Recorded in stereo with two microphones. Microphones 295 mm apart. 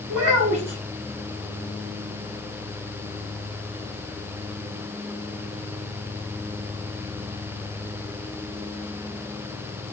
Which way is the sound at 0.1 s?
85° right.